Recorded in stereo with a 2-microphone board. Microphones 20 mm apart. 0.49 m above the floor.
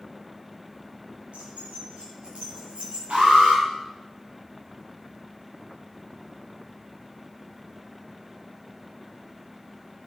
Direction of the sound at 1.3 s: 75° right (ahead or behind).